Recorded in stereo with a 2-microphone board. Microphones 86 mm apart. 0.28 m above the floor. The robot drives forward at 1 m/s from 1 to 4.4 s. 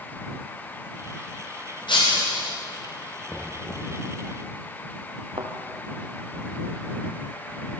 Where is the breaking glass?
75° left (ahead or behind), 9.5 m; by 2.6 s 70° left (ahead or behind), 10 m.